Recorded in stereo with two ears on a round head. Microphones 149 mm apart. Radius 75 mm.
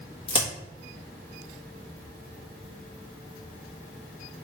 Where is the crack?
30° left (ahead or behind), 1.3 m.